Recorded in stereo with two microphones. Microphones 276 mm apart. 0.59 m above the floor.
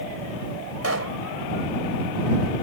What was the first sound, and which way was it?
A pop, 60° right (ahead or behind).